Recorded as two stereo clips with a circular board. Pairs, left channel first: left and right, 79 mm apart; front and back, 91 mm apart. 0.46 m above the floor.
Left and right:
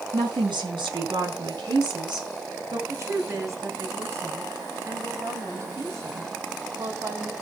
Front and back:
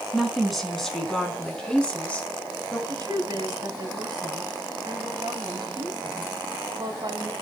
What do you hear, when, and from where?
0.1 s a woman speaking: 95° right, 4.5 m; by 2.8 s 70° right, 4.5 m
2.9 s a woman speaking: 140° right, 2.5 m